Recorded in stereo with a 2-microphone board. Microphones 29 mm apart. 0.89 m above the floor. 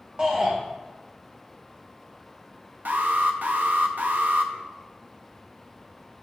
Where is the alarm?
70° right (ahead or behind), 0.5 m.